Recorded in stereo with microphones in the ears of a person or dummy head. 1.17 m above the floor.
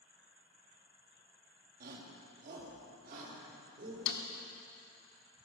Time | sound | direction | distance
1.8 | a shout | 50° right (ahead or behind) | 2 m
4.1 | a snare drum | 65° left (ahead or behind) | 1.4 m